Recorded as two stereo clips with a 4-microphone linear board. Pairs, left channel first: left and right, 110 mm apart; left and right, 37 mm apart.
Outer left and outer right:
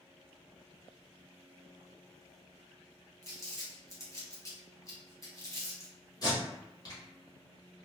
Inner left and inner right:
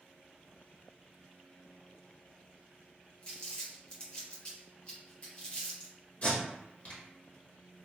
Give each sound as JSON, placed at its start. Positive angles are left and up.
{"t": 3.2, "sound": "crumpling", "side_deg": 30, "distance_m": 1.1}
{"t": 6.2, "sound": "tape being pulled", "side_deg": 40, "distance_m": 1.4}